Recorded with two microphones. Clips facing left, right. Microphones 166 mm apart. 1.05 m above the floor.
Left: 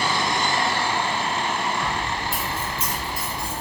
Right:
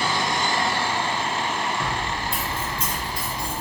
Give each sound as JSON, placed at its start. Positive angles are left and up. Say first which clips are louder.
{"t": 1.8, "sound": "keys jangling", "louder": "left 1 dB", "side_deg": 5, "distance_m": 1.5}